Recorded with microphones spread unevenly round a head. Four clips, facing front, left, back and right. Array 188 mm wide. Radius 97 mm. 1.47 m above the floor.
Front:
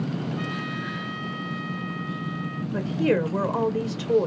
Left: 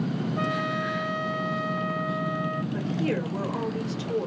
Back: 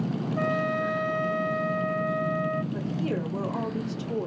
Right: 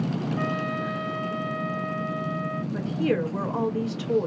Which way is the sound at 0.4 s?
140° left.